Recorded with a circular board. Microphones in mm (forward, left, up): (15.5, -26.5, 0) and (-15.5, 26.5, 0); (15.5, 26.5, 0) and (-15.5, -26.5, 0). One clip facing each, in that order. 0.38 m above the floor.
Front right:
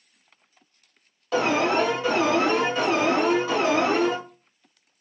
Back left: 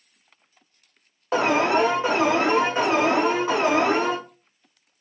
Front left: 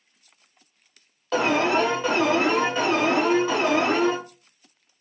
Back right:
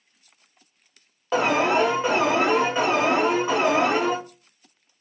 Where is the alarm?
175° left, 0.9 m.